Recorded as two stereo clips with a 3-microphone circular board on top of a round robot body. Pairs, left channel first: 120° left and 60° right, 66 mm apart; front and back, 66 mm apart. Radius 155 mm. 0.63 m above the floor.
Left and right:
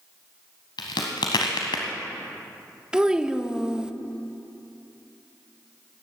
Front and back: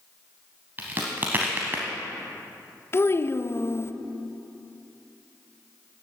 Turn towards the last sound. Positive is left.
turn(degrees=15)